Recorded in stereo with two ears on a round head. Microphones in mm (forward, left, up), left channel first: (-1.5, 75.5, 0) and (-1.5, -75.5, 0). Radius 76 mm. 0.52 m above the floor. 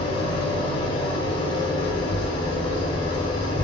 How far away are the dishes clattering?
No dishes clattering in this recording.